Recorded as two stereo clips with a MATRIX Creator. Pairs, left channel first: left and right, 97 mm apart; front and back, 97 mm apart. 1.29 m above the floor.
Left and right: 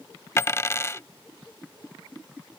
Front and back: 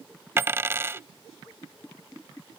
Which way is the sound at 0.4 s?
130° left.